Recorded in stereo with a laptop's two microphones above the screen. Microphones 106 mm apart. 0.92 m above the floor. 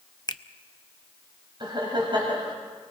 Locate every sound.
0.3 s a finger snap: 40° left (ahead or behind), 0.7 m
1.6 s laughter: 45° right (ahead or behind), 5 m